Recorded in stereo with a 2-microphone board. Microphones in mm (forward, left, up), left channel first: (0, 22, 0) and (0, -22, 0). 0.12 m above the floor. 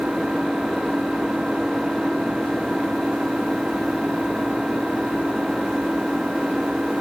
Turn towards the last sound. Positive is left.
turn(degrees=-20)  # may be behind; listen again after turning